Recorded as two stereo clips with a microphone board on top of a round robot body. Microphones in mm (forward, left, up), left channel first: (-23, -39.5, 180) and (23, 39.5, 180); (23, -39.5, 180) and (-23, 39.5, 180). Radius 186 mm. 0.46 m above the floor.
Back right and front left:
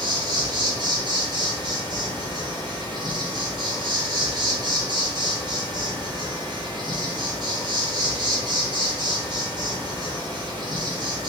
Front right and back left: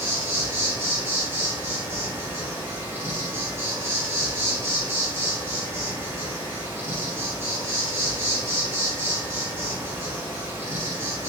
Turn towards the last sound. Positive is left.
turn(degrees=65)